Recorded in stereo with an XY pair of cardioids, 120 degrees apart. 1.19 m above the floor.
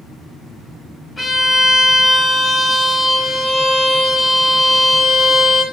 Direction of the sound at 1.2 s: 20° left.